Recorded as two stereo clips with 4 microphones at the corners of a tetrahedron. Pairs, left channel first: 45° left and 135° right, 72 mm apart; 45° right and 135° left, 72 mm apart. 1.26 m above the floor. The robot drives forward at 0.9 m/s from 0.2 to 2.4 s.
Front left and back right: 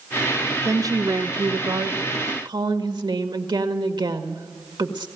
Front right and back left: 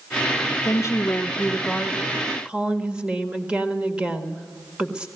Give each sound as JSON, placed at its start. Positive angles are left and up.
{"t": 0.7, "sound": "a woman speaking", "azimuth_deg": -85, "distance_m": 0.9}